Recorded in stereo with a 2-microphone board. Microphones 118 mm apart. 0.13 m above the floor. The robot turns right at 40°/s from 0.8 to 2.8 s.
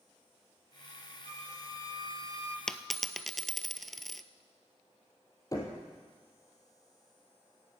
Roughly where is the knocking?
Left.